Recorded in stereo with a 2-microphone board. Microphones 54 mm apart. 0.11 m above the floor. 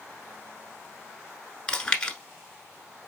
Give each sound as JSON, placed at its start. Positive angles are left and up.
{"t": 1.7, "sound": "chewing", "side_deg": 15, "distance_m": 1.1}